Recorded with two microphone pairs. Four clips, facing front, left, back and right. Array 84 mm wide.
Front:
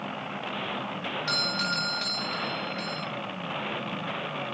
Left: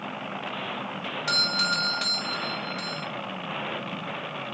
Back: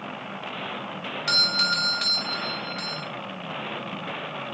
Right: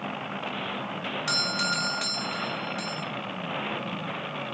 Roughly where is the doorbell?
Behind.